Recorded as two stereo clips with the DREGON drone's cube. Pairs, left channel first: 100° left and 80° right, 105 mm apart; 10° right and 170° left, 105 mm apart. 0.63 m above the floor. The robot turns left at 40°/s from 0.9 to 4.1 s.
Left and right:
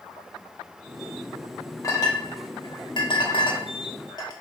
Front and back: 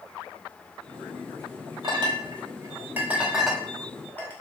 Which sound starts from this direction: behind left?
A clink, at 1.8 s.